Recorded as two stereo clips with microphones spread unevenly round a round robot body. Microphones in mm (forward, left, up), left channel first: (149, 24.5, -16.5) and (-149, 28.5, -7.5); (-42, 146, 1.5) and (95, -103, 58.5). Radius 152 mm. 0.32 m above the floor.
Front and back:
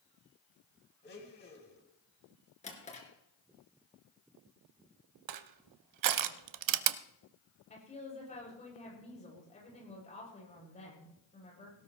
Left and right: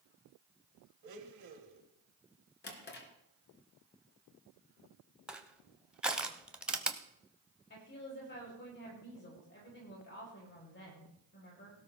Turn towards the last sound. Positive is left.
turn(degrees=65)